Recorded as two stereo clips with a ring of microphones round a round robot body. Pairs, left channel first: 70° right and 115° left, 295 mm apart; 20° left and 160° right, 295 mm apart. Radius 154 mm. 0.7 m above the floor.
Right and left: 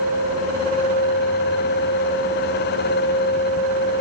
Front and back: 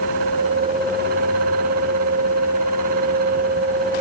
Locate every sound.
Only background noise.